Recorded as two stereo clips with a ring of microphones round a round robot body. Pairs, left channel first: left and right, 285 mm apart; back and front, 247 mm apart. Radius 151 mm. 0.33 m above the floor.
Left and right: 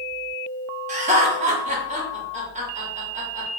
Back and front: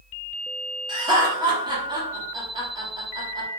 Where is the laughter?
55° right, 1.0 m.